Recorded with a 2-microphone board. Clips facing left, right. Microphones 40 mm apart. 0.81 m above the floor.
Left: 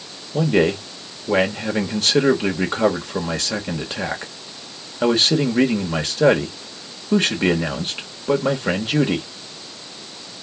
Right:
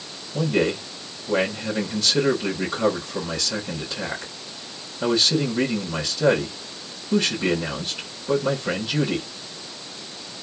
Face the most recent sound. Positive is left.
turn(degrees=50)  # may be behind; listen again after turning